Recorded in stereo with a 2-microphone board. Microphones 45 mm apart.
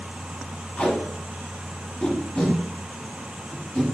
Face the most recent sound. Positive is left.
turn(degrees=30)  # may be behind; listen again after turning